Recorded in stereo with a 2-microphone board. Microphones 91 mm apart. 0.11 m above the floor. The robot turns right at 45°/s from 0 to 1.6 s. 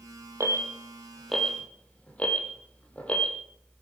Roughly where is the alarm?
Right.